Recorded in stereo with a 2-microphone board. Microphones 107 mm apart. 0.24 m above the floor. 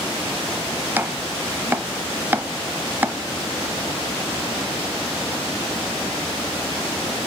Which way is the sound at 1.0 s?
20° right (ahead or behind).